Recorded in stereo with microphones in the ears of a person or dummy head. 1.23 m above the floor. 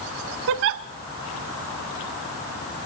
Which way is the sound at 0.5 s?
60° right (ahead or behind).